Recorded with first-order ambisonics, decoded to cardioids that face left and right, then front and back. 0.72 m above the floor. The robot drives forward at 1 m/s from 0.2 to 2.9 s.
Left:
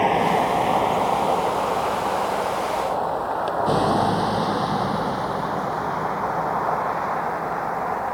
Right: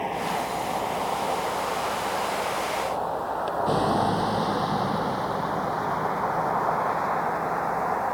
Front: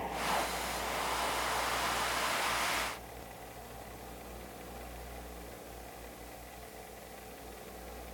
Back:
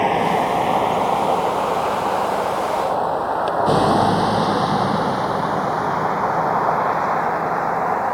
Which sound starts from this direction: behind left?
A vehicle, at 0.0 s.